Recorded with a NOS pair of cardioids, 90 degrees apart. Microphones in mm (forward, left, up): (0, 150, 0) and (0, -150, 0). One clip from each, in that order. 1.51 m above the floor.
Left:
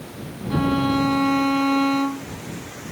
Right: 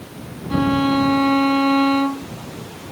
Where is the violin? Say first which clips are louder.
Right 3 dB; 25° right.